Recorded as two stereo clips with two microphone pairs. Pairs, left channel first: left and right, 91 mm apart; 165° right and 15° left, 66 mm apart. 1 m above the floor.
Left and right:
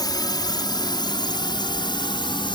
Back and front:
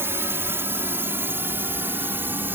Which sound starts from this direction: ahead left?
A drone, at 0.0 s.